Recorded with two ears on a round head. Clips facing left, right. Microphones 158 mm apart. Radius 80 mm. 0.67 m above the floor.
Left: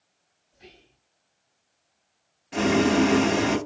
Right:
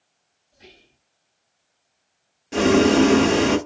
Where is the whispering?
65° right (ahead or behind), 2.5 m.